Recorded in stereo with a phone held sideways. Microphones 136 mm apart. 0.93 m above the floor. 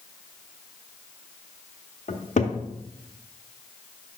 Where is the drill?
I don't hear a drill.